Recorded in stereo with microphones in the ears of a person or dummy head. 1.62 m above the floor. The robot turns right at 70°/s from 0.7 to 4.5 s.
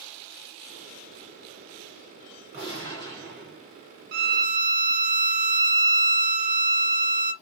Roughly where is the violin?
Right.